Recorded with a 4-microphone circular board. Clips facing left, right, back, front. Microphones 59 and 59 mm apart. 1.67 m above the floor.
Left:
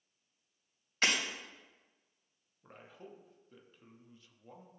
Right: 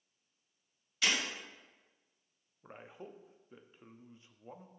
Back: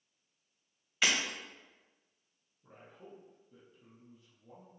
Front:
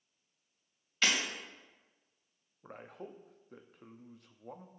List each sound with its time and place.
1.0 s breaking glass: 105° left, 2 m
2.6 s a man speaking: 25° right, 0.7 m